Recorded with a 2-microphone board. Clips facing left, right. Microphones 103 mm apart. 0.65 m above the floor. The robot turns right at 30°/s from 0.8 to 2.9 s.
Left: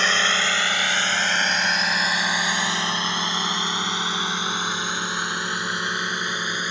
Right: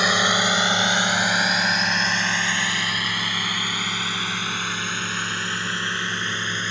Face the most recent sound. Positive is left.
turn(degrees=15)  # may be behind; listen again after turning